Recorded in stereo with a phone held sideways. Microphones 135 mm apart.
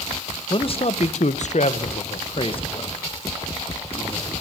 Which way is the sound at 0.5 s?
40° left (ahead or behind).